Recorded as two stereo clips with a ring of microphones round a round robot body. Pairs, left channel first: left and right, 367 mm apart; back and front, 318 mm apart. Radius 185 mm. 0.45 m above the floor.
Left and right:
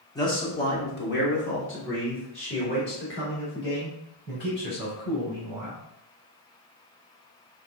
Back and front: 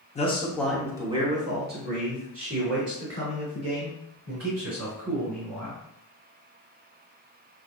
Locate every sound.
0.1 s a man speaking: 155° left, 1.2 m; by 5.8 s 30° left, 5 m